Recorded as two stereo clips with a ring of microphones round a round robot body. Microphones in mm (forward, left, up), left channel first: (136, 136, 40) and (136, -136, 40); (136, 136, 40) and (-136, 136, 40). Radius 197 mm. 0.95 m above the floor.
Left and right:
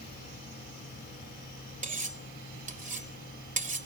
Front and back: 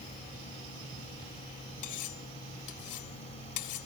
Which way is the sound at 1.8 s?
30° right.